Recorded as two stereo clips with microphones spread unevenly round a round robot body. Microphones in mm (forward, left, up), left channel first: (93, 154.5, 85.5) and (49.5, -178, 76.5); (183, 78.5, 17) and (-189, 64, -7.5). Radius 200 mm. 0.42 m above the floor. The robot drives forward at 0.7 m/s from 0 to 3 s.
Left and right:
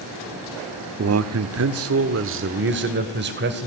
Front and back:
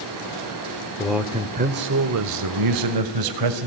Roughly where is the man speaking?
Right.